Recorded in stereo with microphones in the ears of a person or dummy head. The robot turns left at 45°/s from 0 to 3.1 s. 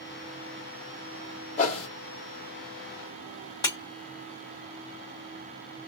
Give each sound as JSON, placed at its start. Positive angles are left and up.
{"t": 1.6, "sound": "a whoosh", "side_deg": 50, "distance_m": 1.1}
{"t": 3.6, "sound": "breaking glass", "side_deg": 30, "distance_m": 1.6}